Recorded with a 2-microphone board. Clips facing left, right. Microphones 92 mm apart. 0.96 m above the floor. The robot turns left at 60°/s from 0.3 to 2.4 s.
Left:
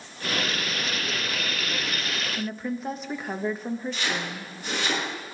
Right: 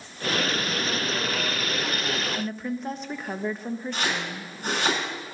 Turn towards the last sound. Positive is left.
turn(degrees=-70)  # may be behind; listen again after turning